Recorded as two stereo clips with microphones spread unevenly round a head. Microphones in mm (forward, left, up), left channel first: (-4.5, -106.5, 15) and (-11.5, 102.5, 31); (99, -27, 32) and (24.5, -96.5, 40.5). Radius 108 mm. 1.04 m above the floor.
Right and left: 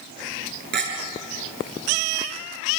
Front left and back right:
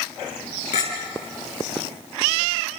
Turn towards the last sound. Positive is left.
turn(degrees=50)